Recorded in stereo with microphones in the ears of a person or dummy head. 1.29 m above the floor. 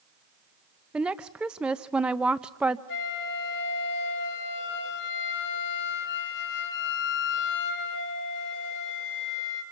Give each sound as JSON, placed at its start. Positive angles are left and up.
{"t": 0.9, "sound": "a woman speaking", "side_deg": -5, "distance_m": 0.7}
{"t": 2.9, "sound": "a flute", "side_deg": 65, "distance_m": 3.0}